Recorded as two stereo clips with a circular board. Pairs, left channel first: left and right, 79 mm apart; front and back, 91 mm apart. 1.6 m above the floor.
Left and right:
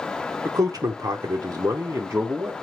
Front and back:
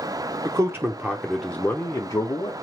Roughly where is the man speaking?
Behind right.